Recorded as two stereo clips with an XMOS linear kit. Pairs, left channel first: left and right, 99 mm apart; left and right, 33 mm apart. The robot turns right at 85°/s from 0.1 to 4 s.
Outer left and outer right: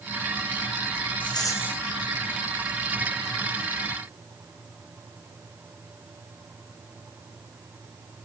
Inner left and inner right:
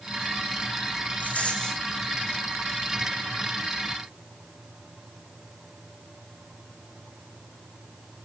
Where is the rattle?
120° left, 4 m; by 1.8 s 175° left, 4 m.